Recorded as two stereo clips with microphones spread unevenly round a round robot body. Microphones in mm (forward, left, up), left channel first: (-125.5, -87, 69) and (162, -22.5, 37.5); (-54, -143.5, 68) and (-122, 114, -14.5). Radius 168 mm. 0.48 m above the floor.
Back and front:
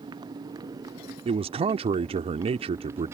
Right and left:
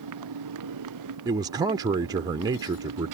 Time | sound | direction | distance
0.0 | a motorcycle | 90° left | ?
1.2 | a man speaking | 65° left | ?